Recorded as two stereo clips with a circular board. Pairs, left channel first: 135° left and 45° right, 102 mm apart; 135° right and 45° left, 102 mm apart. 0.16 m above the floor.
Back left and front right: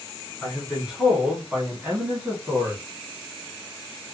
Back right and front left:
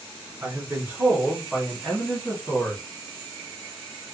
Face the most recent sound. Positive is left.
turn(degrees=-95)